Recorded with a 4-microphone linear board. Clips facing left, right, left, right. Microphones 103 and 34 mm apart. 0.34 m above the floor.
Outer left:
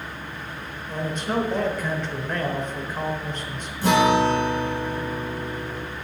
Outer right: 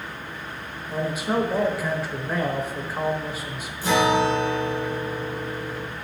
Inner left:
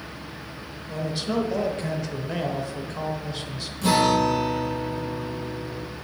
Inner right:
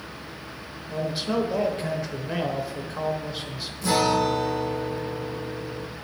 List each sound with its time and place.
0.9 s a man speaking: 10° right (ahead or behind), 1.1 m
3.8 s a guitar: 60° left (ahead or behind), 5.5 m